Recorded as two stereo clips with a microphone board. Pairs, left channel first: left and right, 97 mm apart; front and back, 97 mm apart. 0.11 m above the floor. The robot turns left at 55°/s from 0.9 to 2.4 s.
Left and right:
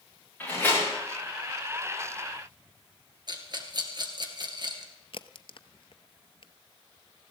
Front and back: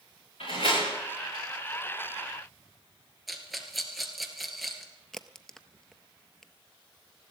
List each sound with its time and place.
0.4 s a door slam: 15° left, 9.5 m
3.3 s a rattle: 90° right, 2 m
5.1 s a crack: 85° left, 0.7 m